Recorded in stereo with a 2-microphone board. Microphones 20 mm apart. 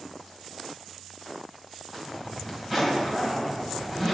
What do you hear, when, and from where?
1.9 s a zipper: 5° right (ahead or behind), 5 m